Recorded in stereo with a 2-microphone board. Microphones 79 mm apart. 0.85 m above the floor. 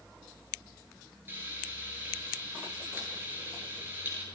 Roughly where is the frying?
Right.